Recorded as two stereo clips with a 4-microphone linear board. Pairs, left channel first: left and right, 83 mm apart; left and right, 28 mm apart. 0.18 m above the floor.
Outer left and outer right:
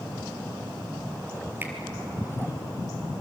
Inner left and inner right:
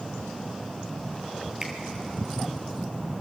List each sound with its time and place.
1.6 s a finger snap: 25° right (ahead or behind), 3.5 m